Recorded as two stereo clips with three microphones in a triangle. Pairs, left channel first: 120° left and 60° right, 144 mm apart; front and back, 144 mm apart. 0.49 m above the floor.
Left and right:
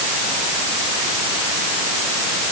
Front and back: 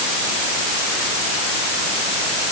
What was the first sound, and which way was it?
Only background noise.